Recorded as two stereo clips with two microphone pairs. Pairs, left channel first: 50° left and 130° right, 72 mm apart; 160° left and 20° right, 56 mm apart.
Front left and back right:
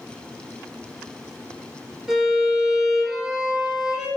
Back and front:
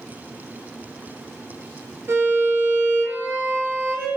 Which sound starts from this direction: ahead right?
A violin, at 2.1 s.